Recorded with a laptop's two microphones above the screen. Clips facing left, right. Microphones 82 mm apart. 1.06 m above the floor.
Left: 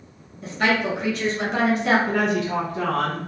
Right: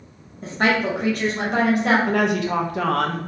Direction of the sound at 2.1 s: 85° right.